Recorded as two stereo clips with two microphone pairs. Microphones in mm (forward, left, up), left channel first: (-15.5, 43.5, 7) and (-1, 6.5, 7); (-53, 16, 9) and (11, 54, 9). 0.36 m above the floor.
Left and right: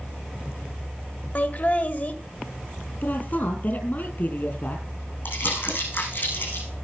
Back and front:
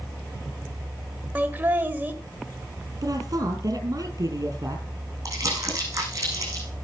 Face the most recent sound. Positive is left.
turn(degrees=80)